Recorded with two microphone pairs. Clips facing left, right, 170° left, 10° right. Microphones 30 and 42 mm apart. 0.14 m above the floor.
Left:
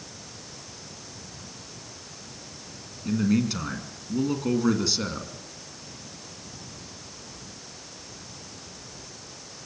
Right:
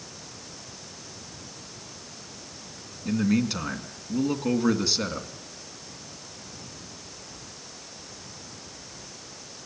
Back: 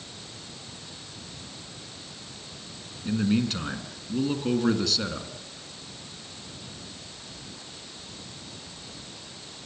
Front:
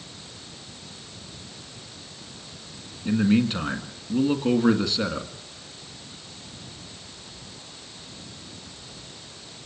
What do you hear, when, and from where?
3.0 s a man speaking: 15° right, 1.7 m